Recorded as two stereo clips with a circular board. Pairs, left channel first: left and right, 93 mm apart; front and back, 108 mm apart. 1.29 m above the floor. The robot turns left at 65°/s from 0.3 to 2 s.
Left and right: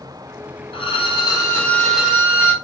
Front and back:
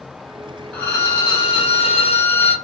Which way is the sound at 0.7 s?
80° left.